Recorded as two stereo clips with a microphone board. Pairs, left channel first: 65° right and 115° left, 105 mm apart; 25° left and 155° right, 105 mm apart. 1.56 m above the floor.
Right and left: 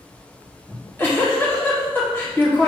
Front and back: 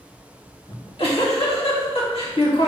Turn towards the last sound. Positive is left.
turn(degrees=0)